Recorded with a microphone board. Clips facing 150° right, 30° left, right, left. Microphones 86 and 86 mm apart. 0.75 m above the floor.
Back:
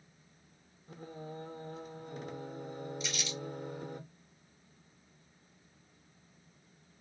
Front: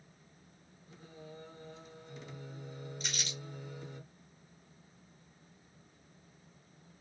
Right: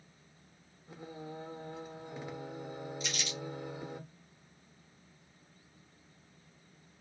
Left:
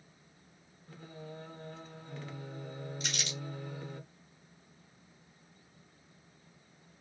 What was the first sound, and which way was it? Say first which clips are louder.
Singing: back 6 dB, right 2 dB; 160° right.